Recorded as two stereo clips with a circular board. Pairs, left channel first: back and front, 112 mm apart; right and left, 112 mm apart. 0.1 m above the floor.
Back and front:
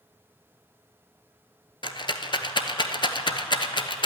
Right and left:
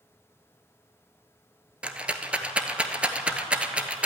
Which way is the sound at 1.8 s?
165° left.